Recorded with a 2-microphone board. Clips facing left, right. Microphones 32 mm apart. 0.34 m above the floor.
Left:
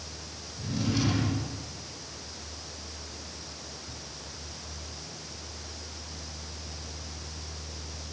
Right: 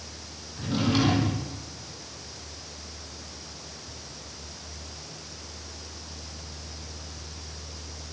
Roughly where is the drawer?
Right.